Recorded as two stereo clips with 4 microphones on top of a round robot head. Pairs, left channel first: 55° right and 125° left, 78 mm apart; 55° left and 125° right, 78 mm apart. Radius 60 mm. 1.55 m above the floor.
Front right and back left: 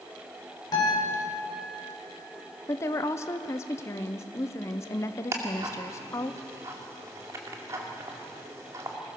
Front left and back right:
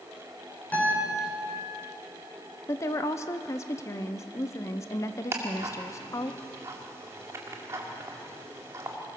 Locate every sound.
0.7 s a guitar: 15° right, 6 m
2.7 s a woman speaking: straight ahead, 0.8 m
5.3 s ticking: straight behind, 1.8 m